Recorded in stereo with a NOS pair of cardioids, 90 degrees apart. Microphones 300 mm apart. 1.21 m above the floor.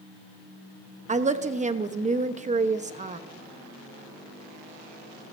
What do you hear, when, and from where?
1.1 s a woman speaking: 25° right, 1.1 m